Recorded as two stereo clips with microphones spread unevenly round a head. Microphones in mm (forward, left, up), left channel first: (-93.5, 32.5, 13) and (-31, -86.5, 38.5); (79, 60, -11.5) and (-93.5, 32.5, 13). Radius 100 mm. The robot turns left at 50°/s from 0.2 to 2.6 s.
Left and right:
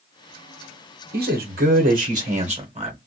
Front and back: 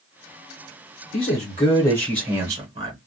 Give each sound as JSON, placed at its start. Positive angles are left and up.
{"t": 1.1, "sound": "a man speaking", "azimuth_deg": -35, "distance_m": 0.8}